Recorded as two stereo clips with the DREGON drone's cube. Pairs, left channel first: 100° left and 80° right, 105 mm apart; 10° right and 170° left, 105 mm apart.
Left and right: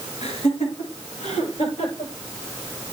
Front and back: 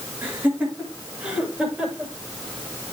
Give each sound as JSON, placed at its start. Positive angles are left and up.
{"t": 0.2, "sound": "laughter", "azimuth_deg": 95, "distance_m": 7.0}